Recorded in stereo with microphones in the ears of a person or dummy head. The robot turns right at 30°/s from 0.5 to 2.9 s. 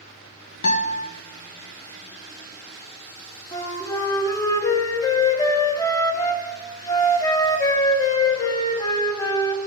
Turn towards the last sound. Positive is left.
turn(degrees=20)  # may be behind; listen again after turning